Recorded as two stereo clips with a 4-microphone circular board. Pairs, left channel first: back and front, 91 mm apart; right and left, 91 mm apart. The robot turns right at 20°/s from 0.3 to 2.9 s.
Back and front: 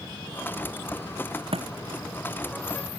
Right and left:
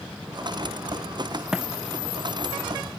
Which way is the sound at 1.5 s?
5° left.